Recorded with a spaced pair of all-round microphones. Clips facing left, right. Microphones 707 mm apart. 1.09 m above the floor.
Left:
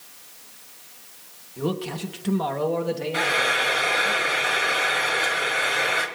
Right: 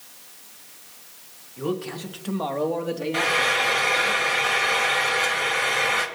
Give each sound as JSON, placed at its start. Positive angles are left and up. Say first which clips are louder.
{"t": 1.6, "sound": "a man speaking", "louder": "left 1 dB", "side_deg": 65, "distance_m": 1.5}
{"t": 3.1, "sound": "frying", "louder": "right 1 dB", "side_deg": -30, "distance_m": 1.4}